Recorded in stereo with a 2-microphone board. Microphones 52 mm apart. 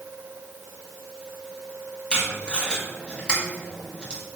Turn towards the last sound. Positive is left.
turn(degrees=20)  # may be behind; listen again after turning